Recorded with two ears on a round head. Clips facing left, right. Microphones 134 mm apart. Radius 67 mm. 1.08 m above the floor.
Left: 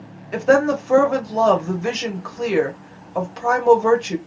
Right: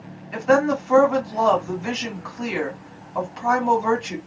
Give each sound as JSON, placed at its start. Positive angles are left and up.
{"t": 0.3, "sound": "a woman speaking", "side_deg": 45, "distance_m": 1.3}